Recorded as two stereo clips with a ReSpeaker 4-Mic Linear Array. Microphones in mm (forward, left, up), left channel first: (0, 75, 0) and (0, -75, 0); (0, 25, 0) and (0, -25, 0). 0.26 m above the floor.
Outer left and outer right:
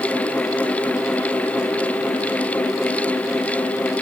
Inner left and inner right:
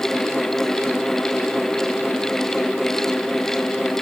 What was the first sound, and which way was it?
Only background noise.